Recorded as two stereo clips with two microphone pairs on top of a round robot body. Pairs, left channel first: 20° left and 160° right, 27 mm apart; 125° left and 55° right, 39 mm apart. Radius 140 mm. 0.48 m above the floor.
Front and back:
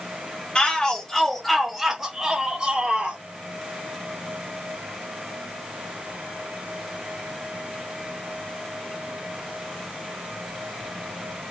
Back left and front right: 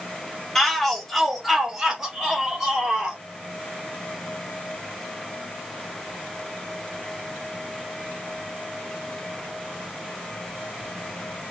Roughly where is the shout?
Ahead left.